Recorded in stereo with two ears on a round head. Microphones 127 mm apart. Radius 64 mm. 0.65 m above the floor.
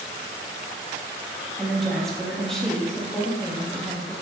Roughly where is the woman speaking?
Centre.